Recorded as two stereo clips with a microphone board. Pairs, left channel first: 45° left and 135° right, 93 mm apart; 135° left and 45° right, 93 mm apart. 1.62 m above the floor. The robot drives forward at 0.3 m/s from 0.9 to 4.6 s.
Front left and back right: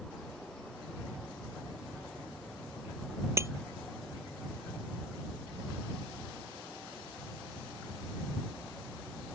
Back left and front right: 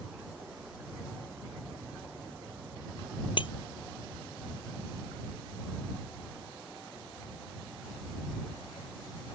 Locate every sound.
3.4 s breaking glass: 165° left